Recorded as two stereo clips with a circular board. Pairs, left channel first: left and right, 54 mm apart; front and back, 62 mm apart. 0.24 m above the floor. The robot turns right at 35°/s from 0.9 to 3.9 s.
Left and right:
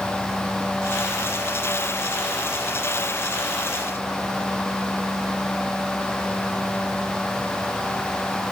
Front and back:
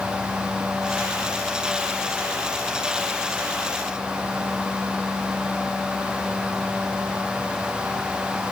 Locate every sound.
Only background noise.